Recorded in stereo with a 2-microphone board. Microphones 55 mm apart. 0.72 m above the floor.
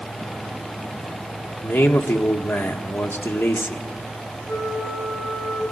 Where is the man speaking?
45° left (ahead or behind), 1.5 m.